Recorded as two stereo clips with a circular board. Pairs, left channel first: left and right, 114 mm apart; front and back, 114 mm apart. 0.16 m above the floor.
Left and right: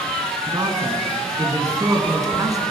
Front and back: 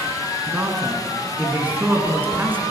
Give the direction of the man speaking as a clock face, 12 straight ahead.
4 o'clock.